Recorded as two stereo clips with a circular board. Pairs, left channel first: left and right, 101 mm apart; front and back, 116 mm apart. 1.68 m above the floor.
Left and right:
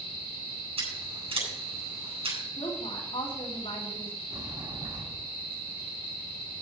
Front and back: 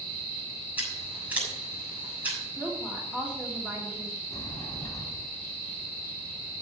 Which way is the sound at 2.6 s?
105° left.